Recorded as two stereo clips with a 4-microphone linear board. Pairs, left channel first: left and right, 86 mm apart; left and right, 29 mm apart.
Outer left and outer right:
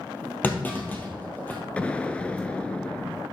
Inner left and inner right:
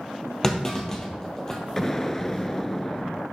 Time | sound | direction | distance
0.4 | a clunk | 20° left (ahead or behind) | 1.9 m
1.8 | an explosion | 15° left (ahead or behind) | 0.7 m